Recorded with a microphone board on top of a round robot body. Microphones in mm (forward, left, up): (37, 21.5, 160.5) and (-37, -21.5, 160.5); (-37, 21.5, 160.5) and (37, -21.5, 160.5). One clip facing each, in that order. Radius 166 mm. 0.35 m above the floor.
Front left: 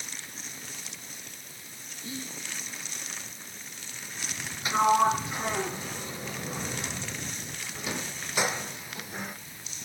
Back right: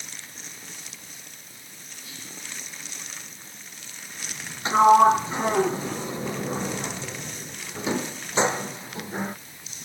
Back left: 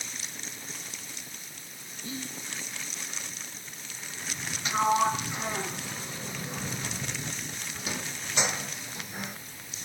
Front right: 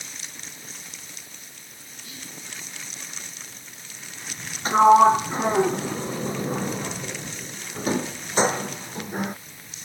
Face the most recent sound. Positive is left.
turn(degrees=-85)